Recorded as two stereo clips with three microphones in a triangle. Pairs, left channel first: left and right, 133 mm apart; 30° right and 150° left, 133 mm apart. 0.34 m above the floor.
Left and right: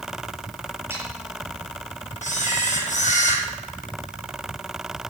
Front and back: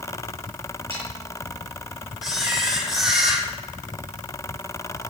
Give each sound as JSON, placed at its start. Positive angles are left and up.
{"t": 0.9, "sound": "sawing", "azimuth_deg": -165, "distance_m": 8.0}
{"t": 2.2, "sound": "a camera shutter", "azimuth_deg": 65, "distance_m": 6.0}